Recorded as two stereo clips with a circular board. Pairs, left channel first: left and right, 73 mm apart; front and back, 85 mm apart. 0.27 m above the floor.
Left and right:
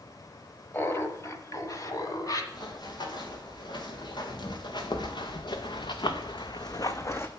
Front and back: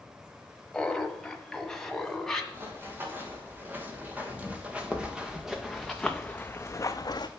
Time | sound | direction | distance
0.7 | laughter | 75° left | 1.0 m
2.5 | running footsteps | 115° left | 3 m